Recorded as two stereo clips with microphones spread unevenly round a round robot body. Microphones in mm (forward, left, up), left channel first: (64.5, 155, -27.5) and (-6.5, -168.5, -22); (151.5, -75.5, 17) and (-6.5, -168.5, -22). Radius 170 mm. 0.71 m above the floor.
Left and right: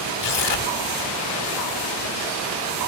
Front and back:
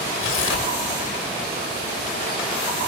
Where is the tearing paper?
65° left, 2 m.